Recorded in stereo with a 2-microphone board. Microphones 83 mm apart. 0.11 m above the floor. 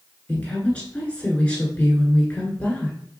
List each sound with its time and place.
0.3 s a woman speaking: 15° left (ahead or behind), 1.3 m